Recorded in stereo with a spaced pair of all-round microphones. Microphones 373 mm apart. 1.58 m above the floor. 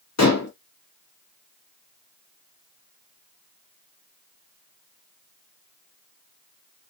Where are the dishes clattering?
45° left (ahead or behind), 0.8 m.